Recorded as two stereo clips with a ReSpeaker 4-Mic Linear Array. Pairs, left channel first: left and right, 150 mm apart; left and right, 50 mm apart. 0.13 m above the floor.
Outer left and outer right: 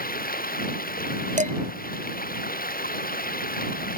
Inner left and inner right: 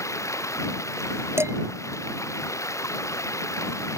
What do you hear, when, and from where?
0.0 s running water: 75° left (ahead or behind)
1.4 s dishes clattering: 55° right (ahead or behind)